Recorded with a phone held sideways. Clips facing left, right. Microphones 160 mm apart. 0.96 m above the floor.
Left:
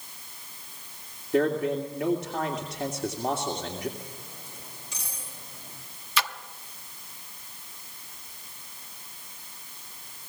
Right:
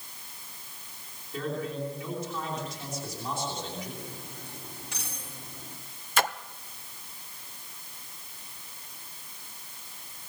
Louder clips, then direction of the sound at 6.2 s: Right 3 dB; 50° right (ahead or behind).